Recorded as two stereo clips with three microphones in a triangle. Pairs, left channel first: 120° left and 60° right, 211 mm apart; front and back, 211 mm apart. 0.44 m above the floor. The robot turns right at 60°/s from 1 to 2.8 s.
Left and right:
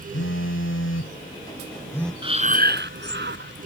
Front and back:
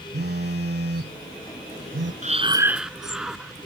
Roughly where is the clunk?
I don't hear a clunk.